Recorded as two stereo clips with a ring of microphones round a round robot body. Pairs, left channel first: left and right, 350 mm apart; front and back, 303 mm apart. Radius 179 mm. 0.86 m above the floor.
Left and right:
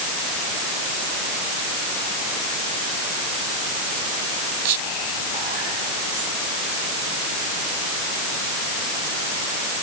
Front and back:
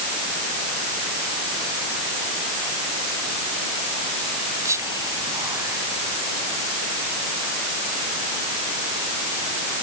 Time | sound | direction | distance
4.7 | whispering | 100° right | ?